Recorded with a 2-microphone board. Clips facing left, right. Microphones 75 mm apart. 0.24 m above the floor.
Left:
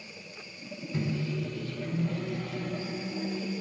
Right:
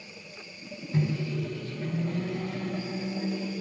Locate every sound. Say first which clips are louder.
0.9 s a microwave: right 3 dB; 35° right (ahead or behind), 1.5 m